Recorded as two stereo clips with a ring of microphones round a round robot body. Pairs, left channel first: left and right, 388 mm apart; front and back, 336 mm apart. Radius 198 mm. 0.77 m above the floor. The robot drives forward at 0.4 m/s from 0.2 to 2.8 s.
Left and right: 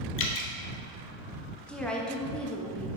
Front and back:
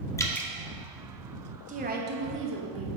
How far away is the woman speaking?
About 1.0 m.